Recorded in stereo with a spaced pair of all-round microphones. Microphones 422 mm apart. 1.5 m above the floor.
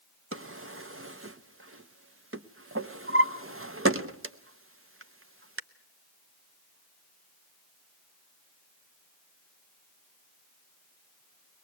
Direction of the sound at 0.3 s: 30° right (ahead or behind).